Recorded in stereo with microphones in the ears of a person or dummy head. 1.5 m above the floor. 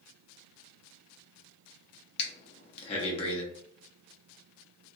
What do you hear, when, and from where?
2.2 s breathing: 35° left (ahead or behind), 0.7 m